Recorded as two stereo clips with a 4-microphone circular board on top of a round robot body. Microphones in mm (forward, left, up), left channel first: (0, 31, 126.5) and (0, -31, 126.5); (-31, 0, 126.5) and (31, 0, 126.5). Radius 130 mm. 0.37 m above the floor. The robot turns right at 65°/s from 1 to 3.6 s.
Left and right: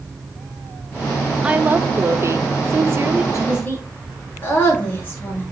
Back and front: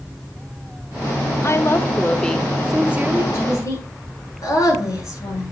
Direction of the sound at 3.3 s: 130° left.